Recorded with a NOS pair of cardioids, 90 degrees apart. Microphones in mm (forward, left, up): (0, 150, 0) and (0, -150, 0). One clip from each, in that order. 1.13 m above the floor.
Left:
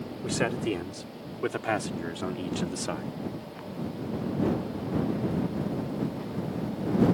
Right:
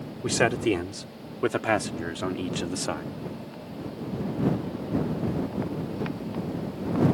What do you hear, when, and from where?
0.2 s a man speaking: 40° right; by 3.1 s 20° right